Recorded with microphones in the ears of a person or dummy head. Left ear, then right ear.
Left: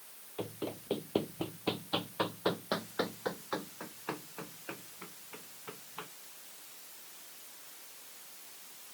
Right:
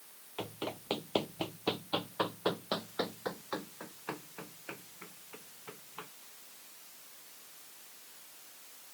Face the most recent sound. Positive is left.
turn(degrees=-5)  # may be behind; listen again after turning